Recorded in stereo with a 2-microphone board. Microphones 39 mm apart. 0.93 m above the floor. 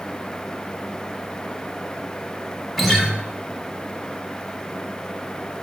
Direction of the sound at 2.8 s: Centre (ahead or behind).